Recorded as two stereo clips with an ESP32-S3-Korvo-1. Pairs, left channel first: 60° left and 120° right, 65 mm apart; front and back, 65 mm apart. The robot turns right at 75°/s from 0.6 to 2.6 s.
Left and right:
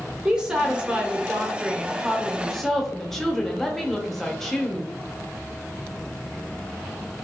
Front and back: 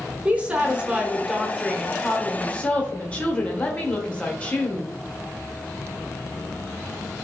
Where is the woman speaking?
165° right, 0.8 m; by 4.9 s 15° right, 0.8 m.